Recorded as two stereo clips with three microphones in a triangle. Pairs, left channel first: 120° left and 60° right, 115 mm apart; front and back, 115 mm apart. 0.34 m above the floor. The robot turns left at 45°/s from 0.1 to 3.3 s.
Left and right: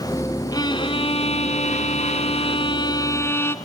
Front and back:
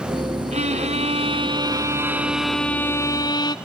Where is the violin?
175° left, 0.9 m; by 3.5 s 50° left, 0.9 m.